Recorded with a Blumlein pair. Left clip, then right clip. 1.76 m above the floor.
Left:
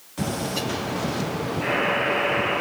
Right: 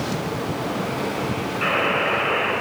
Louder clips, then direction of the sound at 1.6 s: Right 2 dB; 60° right.